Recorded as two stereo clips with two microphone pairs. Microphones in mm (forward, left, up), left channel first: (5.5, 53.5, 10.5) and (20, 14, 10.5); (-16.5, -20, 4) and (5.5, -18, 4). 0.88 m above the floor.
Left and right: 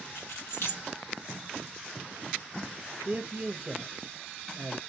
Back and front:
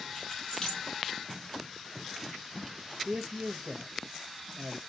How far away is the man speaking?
About 0.7 m.